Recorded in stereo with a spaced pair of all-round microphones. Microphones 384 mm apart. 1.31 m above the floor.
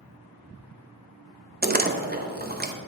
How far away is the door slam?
About 0.5 m.